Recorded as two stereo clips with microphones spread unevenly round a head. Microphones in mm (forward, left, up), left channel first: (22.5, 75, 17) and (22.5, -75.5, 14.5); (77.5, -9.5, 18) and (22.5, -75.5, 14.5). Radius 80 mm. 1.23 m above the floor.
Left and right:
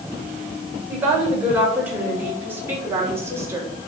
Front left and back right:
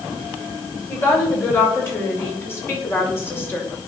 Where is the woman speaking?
10° right, 6 m; by 3.7 s 20° right, 4.5 m.